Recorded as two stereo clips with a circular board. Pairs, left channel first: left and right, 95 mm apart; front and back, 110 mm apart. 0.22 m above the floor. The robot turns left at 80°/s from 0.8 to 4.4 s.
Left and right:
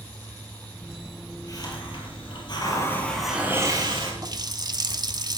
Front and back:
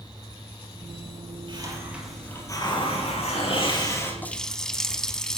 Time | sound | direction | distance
1.5 | a hiss | 140° left | 5 m
4.2 | a running tap | 65° right | 0.9 m